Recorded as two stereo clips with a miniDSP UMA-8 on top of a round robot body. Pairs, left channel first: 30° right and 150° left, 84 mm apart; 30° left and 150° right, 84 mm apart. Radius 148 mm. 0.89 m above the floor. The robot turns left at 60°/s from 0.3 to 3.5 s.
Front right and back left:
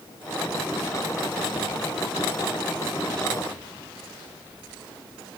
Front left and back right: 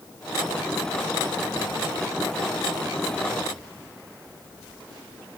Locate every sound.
Only background noise.